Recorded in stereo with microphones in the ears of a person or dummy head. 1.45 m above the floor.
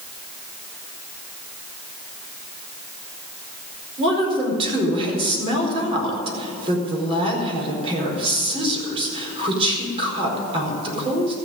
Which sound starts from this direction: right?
A woman speaking, at 4.0 s.